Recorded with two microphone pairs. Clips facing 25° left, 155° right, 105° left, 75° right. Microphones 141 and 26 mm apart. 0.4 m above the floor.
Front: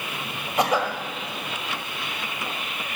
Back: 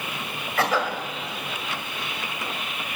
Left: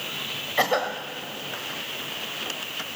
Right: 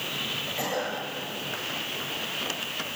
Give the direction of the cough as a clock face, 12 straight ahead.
9 o'clock.